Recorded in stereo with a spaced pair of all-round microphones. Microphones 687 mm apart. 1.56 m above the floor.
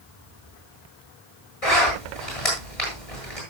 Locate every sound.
1.6 s a zipper: 50° left (ahead or behind), 9 m